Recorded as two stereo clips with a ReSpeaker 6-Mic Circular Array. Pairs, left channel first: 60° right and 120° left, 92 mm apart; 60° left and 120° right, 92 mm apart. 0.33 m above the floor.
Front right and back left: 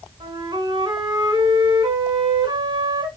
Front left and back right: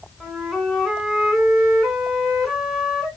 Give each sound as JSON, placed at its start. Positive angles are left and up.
{"t": 0.2, "sound": "a flute", "azimuth_deg": 150, "distance_m": 0.9}